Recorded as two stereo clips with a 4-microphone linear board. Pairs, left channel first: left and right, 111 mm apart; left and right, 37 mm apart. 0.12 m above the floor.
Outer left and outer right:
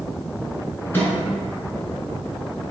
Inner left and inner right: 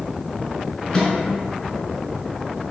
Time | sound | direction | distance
0.9 | a microwave | 20° left (ahead or behind) | 0.9 m